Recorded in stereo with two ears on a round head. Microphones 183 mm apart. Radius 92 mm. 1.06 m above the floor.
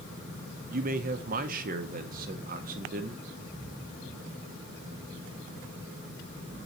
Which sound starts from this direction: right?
A man speaking, at 0.7 s.